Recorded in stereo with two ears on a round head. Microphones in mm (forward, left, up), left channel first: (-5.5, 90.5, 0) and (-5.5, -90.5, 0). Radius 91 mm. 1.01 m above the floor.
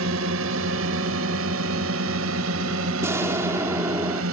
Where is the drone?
75° right (ahead or behind); by 4.3 s 80° right.